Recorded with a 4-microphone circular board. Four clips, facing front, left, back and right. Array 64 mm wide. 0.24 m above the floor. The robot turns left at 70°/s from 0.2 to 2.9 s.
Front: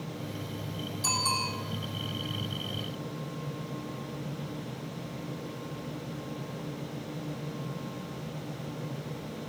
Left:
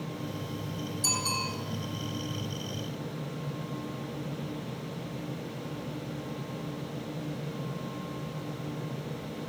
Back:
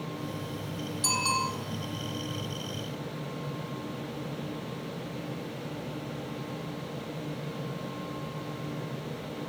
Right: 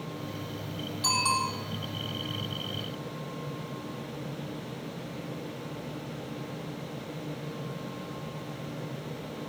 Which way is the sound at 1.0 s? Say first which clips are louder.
Right 7 dB, back 3 dB; 100° right.